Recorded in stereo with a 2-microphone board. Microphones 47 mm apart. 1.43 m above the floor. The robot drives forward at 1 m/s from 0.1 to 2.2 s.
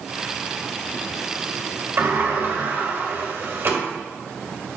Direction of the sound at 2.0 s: 60° right (ahead or behind).